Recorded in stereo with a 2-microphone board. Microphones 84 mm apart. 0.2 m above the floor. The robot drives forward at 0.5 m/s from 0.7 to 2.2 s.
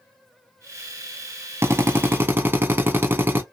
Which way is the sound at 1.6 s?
30° right (ahead or behind).